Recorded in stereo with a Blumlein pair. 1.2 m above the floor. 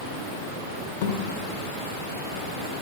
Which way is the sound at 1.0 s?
50° left.